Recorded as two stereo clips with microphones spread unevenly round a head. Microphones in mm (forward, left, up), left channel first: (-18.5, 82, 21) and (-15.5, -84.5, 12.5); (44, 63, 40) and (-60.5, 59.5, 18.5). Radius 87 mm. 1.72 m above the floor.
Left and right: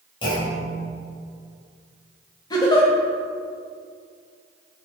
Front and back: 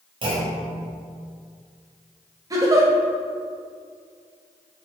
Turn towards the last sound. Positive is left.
turn(degrees=130)